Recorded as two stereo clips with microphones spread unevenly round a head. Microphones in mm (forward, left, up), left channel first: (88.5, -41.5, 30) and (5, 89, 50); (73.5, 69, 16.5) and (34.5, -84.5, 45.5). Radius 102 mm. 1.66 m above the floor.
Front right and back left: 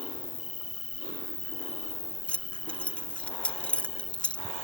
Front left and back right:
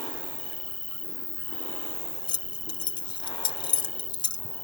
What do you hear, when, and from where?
0.0 s an insect: 10° right
2.3 s keys jangling: 35° left